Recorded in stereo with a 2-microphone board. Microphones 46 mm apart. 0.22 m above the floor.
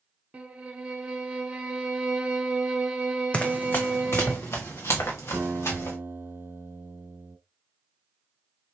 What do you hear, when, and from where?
0.3 s a violin: 25° right (ahead or behind), 1.0 m
3.3 s running footsteps: 25° left (ahead or behind), 0.7 m; by 6.0 s 80° left, 2.5 m
5.3 s a guitar: 45° right (ahead or behind), 0.9 m